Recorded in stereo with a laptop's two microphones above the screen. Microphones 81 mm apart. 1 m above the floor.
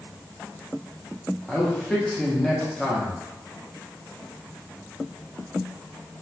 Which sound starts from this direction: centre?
A man speaking, at 1.5 s.